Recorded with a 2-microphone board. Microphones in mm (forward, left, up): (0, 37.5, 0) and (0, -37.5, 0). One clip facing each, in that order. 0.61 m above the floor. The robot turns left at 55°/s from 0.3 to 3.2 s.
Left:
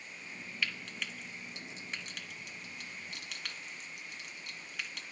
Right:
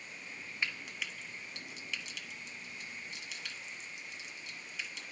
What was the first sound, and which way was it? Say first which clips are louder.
Frying: even; 25° right (ahead or behind).